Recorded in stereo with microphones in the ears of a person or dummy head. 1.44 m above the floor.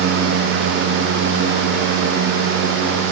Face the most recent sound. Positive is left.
No sound to turn to.